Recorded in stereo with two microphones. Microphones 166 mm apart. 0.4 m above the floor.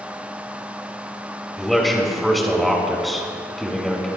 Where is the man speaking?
Centre (ahead or behind), 4 m.